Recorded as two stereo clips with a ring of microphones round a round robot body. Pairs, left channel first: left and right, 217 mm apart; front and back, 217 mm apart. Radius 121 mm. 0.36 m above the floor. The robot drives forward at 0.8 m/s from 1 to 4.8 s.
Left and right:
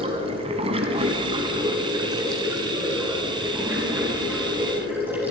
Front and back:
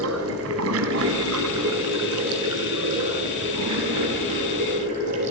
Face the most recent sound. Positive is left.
turn(degrees=-170)